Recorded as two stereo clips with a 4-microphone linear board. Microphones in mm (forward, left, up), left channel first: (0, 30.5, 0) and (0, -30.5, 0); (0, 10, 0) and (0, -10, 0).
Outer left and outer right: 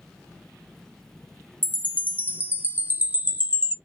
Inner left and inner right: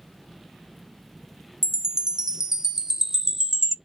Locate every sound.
1.6 s a chime: 30° right (ahead or behind), 0.5 m